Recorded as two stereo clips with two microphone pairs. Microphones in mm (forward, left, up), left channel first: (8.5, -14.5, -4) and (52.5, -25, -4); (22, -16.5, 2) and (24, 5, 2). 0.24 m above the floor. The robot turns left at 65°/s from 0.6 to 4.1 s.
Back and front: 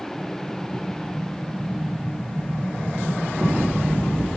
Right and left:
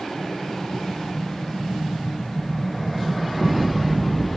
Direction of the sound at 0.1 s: 90° left.